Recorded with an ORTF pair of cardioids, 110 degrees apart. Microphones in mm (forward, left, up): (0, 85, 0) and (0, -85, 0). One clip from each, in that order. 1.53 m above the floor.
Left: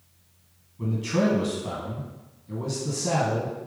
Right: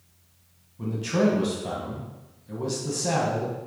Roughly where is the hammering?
No hammering in this recording.